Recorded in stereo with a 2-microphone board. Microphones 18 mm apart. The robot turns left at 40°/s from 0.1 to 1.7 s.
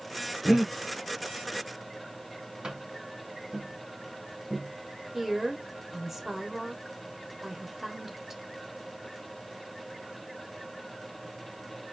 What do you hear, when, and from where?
0.5 s breathing: 30° right (ahead or behind), 1.1 m; by 0.7 s 40° right (ahead or behind), 1.1 m
2.6 s tapping: 55° right (ahead or behind), 3 m
5.1 s a woman speaking: 20° right (ahead or behind), 0.9 m